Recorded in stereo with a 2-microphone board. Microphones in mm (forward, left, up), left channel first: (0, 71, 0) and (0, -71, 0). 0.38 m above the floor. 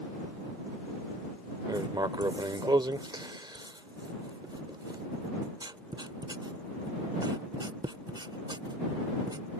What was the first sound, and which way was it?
Writing, 30° right (ahead or behind).